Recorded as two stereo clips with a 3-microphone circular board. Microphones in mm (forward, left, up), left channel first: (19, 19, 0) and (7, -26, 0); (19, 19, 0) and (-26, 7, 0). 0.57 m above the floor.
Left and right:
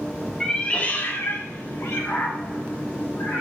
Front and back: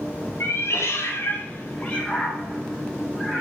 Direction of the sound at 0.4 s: 5° right.